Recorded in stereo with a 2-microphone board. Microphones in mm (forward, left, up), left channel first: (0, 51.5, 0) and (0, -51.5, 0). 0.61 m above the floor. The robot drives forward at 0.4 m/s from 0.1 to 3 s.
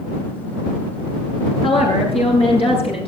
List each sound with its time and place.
1.6 s a woman speaking: 75° left (ahead or behind), 9.5 m; by 3.1 s 80° left, 9.5 m